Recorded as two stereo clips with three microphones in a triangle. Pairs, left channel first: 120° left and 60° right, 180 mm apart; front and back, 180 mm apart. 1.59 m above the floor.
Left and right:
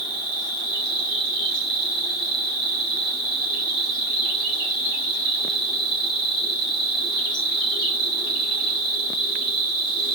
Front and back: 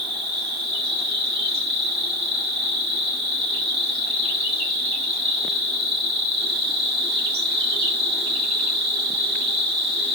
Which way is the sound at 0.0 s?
80° left.